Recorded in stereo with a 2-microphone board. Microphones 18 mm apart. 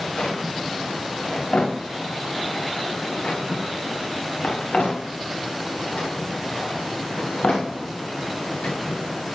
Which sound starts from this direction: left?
A drawer, at 0.2 s.